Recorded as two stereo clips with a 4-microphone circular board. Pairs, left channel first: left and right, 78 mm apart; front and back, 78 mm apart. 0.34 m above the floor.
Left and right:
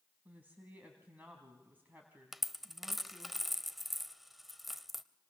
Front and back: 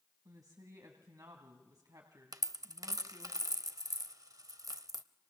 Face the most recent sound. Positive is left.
turn(degrees=-175)